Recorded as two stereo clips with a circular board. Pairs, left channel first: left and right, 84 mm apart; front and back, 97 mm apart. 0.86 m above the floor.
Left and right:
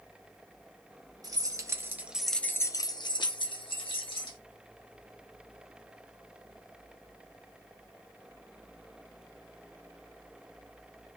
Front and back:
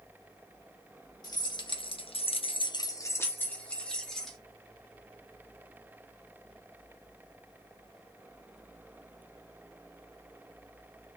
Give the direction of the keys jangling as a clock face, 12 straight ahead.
2 o'clock.